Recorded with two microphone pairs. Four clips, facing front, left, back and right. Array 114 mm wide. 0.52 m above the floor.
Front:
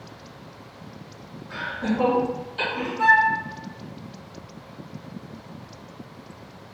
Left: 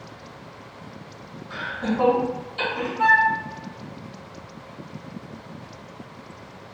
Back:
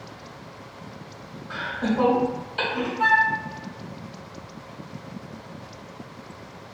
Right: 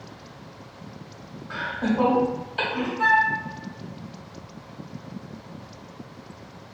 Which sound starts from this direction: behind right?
Laughter, at 1.5 s.